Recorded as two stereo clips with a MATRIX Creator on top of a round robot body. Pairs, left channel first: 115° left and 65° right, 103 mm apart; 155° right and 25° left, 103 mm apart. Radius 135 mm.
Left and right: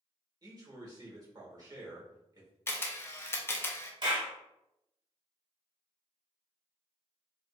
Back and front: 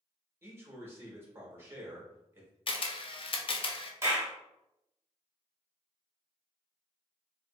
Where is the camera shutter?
Straight behind, 0.6 m.